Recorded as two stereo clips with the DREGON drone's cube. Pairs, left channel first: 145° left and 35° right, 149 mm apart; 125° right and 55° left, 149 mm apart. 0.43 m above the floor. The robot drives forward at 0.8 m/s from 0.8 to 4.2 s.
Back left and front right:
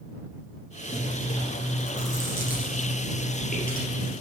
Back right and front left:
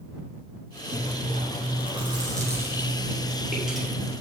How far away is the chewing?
About 1.5 m.